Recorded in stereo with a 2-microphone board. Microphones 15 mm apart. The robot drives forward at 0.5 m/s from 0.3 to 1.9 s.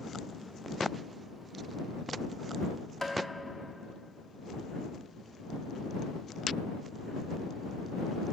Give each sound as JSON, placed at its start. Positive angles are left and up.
{"t": 3.0, "sound": "tapping", "side_deg": 30, "distance_m": 1.0}